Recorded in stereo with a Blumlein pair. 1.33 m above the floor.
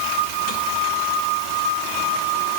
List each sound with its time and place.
Only background noise.